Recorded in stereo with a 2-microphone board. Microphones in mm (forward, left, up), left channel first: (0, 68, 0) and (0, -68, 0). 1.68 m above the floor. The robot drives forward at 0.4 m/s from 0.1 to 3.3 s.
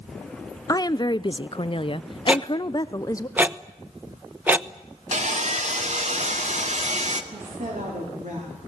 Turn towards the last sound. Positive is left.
turn(degrees=-70)  # may be behind; listen again after turning